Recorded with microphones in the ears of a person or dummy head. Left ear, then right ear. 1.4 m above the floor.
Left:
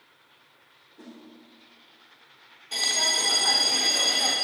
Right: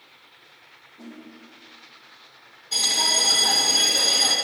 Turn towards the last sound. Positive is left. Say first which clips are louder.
# right 3 dB
turn(degrees=20)  # may be behind; listen again after turning